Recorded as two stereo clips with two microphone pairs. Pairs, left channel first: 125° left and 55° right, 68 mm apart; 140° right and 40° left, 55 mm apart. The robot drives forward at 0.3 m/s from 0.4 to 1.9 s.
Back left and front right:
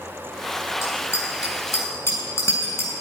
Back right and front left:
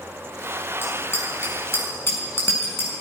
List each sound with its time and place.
0.8 s a bicycle bell: 175° left, 5 m